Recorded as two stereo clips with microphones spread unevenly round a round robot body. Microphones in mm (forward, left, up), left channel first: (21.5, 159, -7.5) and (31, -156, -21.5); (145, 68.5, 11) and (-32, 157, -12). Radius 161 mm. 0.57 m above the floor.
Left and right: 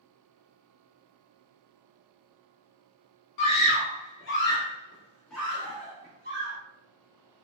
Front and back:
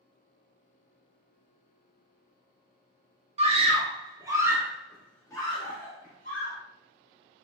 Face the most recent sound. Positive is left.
turn(degrees=-55)